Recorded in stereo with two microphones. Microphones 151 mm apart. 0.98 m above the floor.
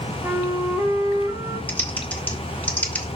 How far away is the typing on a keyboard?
About 1.2 m.